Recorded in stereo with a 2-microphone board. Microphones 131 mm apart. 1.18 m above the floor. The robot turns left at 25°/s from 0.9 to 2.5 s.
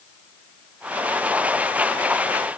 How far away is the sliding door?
No sliding door in this recording.